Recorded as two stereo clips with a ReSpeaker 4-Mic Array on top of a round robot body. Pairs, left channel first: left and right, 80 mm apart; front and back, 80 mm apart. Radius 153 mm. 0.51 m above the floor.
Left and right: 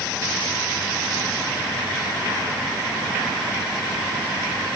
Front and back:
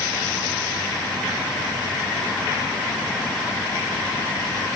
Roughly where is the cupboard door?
No cupboard door in this recording.